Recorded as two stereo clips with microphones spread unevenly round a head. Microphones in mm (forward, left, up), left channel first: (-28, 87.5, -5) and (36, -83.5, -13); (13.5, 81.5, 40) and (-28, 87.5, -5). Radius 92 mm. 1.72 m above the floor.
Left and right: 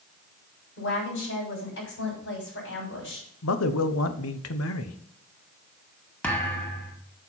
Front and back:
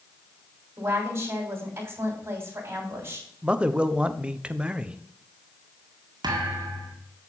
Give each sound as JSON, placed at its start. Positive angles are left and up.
{"t": 0.8, "sound": "a woman speaking", "azimuth_deg": 135, "distance_m": 6.5}
{"t": 3.4, "sound": "a man speaking", "azimuth_deg": 100, "distance_m": 1.1}
{"t": 6.2, "sound": "a thud", "azimuth_deg": -170, "distance_m": 1.7}